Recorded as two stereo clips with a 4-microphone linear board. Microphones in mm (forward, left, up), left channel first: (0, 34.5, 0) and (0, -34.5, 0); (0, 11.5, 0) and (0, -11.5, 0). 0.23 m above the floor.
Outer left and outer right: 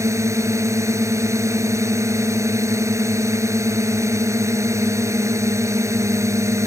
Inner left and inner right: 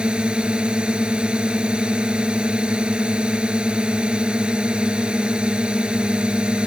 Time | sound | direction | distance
0.0 | a drone | 45° right (ahead or behind) | ?